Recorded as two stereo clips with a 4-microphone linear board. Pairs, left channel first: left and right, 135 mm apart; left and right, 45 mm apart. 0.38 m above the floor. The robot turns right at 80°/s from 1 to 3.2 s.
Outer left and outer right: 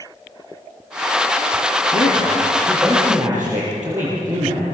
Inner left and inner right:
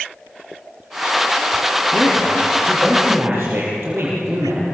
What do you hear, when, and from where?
1.9 s a man speaking: 75° left (ahead or behind), 7.5 m; by 4.7 s 25° right (ahead or behind), 7.5 m